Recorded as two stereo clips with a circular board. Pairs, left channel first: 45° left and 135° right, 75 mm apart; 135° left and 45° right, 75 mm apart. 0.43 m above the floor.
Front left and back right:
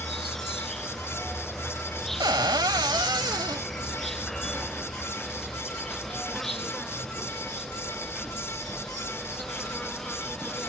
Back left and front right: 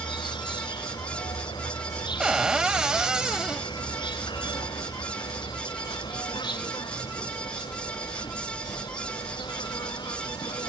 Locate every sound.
0.0 s an insect: 130° left
2.2 s a cupboard door: 125° right